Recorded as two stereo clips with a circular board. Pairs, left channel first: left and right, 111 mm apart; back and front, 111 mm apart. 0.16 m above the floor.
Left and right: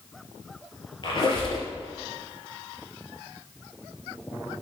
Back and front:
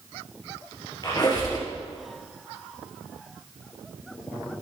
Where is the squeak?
130° left, 2.5 m.